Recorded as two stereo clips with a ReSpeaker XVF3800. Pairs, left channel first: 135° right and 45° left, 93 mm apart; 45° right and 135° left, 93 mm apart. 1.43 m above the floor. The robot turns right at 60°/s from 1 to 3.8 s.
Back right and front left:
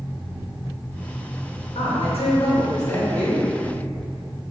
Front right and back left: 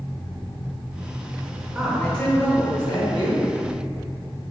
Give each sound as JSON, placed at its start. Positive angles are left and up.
{"t": 1.8, "sound": "a woman speaking", "azimuth_deg": -145, "distance_m": 0.9}